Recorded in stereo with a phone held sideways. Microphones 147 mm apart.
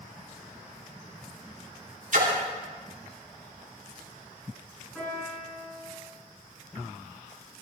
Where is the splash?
60° right (ahead or behind), 3 m.